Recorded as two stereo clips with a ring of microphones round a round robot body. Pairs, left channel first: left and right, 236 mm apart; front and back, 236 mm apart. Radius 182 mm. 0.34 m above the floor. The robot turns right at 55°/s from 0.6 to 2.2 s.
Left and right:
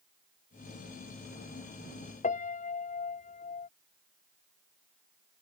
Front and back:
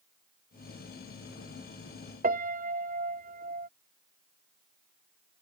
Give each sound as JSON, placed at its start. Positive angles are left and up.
{"t": 2.2, "sound": "a piano", "azimuth_deg": 140}